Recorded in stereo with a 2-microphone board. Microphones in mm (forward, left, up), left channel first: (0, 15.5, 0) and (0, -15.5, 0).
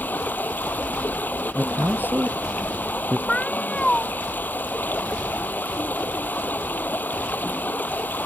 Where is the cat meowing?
30° left (ahead or behind).